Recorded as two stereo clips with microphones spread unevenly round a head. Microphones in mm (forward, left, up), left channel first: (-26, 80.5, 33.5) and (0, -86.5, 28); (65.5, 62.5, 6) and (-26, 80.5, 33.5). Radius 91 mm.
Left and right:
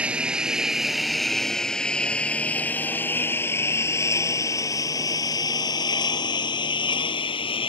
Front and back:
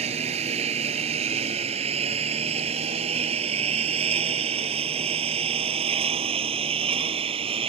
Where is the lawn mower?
165° right; by 7.7 s 160° left.